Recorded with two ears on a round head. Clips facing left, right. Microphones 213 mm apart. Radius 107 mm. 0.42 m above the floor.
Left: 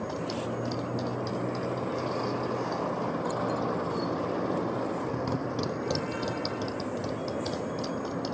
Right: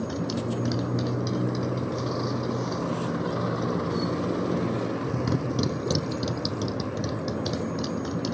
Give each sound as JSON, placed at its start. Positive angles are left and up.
{"t": 0.0, "sound": "a motorcycle", "side_deg": -25}